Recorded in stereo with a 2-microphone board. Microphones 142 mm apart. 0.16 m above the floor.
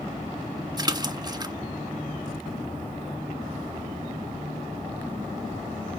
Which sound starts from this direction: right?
A splash, at 0.8 s.